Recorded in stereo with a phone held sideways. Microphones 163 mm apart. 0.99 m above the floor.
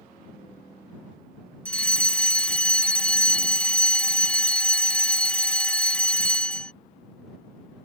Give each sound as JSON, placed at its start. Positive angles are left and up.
{"t": 1.6, "sound": "a fire alarm", "side_deg": 5}